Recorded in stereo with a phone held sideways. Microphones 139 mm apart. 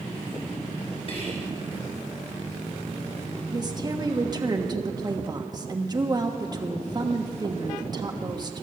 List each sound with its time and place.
1.1 s whispering: 45° left (ahead or behind), 7.5 m
3.5 s a woman speaking: 30° right (ahead or behind), 1.3 m